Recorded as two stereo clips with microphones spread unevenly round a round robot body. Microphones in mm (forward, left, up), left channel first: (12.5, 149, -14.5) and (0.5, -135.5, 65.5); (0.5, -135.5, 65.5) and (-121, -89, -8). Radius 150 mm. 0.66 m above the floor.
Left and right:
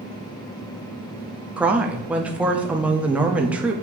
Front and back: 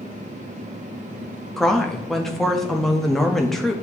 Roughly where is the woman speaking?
Behind left.